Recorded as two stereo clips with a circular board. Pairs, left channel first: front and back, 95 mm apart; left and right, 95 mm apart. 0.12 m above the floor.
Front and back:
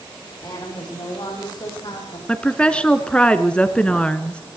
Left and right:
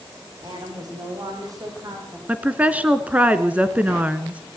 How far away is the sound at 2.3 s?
About 1.2 m.